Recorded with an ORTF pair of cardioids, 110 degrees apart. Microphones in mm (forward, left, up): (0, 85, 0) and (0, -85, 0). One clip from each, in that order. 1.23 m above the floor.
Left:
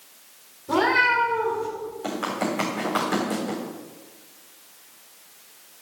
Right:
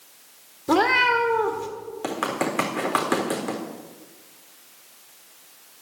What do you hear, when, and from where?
0.7 s a cat meowing: 60° right, 1.9 m
2.0 s running footsteps: 55° right, 4 m